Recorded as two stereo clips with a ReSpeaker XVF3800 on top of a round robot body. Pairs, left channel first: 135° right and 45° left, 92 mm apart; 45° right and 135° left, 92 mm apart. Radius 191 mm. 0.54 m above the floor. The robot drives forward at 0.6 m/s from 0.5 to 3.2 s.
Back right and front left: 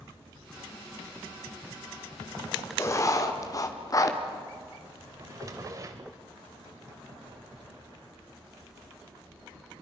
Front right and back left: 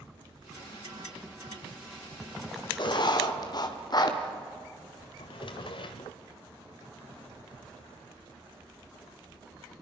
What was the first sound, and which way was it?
Writing, 75° right.